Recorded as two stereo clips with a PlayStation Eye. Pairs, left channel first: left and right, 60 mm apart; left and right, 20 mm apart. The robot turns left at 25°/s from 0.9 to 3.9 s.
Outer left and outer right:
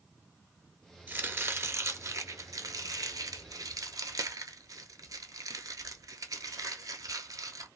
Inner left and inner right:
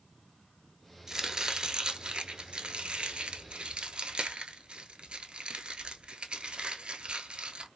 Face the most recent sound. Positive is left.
turn(degrees=-75)  # may be behind; listen again after turning